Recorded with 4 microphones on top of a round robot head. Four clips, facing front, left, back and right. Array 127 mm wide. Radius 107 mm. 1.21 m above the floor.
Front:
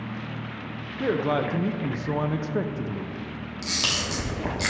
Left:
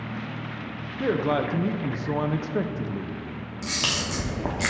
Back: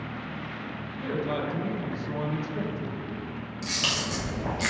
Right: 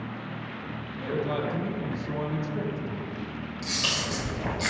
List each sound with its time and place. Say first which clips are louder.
1.0 s a man speaking: left 5 dB, front 6 dB; 45° left, 0.5 m
3.6 s a camera shutter: left 3 dB, front 1 dB; 60° left, 1.0 m